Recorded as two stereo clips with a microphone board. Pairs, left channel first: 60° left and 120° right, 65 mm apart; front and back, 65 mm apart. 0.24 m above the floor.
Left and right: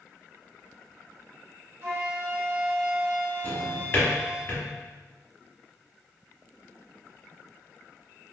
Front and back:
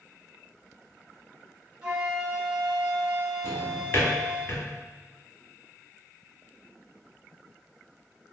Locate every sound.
1.8 s a flute: 110° right, 1.2 m
3.4 s a drawer: 25° left, 0.9 m